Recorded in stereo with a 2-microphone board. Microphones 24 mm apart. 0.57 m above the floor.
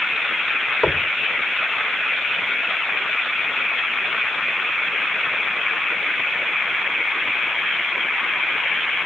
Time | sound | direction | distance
0.8 | knocking | 10° left (ahead or behind) | ?